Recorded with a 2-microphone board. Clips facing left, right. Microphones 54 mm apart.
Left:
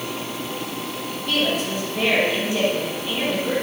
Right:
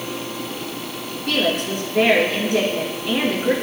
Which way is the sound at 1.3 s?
75° right (ahead or behind).